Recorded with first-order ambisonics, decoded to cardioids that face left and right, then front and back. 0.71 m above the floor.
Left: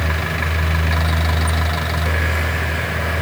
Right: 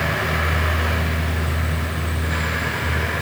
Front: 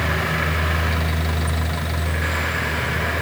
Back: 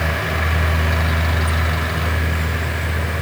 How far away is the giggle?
I don't hear a giggle.